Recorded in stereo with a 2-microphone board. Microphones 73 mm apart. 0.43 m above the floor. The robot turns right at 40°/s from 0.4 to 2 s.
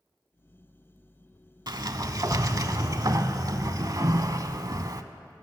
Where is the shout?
No shout in this recording.